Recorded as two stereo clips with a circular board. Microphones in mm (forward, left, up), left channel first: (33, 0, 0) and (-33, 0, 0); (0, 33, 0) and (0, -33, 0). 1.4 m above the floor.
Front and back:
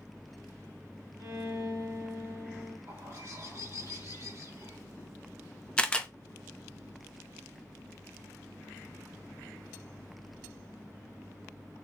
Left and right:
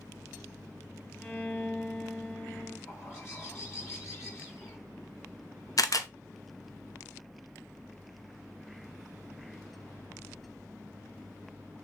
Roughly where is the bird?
Behind left.